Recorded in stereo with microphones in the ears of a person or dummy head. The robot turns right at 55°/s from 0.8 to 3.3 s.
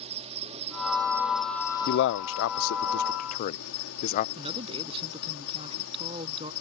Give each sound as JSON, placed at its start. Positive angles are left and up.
{"t": 0.0, "sound": "an insect", "azimuth_deg": -35}
{"t": 1.9, "sound": "a man speaking", "side_deg": 55}
{"t": 4.3, "sound": "a man speaking", "side_deg": -30}